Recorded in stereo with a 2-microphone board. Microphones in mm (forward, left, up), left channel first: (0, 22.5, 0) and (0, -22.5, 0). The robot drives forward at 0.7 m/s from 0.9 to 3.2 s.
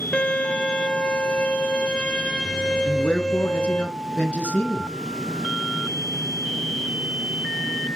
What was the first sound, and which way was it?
A violin, 25° left (ahead or behind).